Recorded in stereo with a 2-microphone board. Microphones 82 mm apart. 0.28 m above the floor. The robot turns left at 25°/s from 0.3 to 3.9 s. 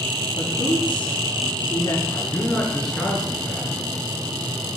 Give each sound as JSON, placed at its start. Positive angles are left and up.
{"t": 0.3, "sound": "a woman speaking", "side_deg": 70, "distance_m": 4.5}
{"t": 2.1, "sound": "a man speaking", "azimuth_deg": 30, "distance_m": 4.5}